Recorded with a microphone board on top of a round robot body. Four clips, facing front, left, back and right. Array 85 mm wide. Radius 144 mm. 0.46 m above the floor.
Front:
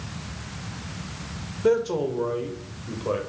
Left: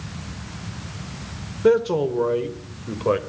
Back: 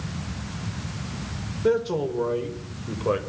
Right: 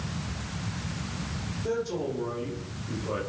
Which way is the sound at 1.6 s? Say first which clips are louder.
Left 12 dB, front 1 dB; 75° left.